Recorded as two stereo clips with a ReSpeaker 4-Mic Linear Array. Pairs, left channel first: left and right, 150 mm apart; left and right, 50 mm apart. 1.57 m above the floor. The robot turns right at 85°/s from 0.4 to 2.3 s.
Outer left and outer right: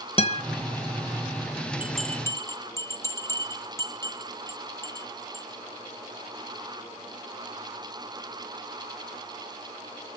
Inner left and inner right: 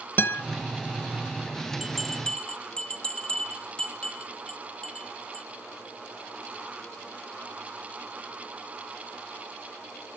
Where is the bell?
10° right (ahead or behind), 1.9 m; by 5.5 s 20° left (ahead or behind), 1.9 m.